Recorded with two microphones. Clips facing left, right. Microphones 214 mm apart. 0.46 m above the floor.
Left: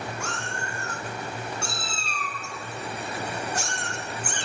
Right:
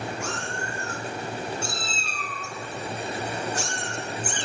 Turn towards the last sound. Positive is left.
turn(degrees=60)  # may be behind; listen again after turning